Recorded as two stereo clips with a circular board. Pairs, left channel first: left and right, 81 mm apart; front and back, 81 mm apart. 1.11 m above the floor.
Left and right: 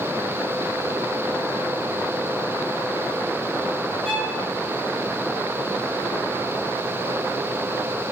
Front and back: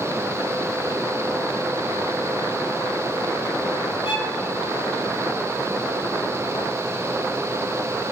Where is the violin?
Straight ahead, 4 m.